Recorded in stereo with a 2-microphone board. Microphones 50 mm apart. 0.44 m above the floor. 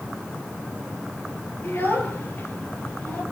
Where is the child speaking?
50° left (ahead or behind), 4.5 m; by 3.2 s 35° left (ahead or behind), 5 m.